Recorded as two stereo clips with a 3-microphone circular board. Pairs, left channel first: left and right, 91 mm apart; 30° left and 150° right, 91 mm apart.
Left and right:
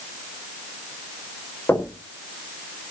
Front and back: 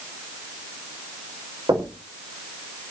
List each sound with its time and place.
1.7 s knocking: 160° left, 5 m